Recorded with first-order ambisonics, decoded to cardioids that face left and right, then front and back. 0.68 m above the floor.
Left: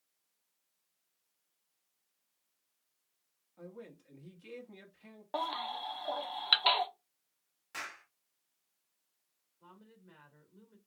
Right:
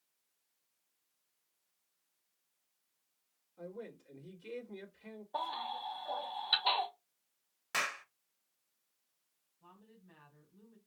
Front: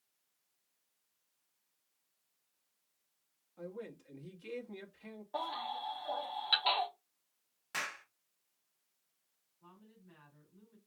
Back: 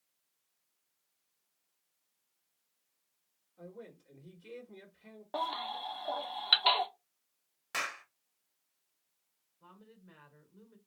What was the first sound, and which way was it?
A man speaking, 25° left.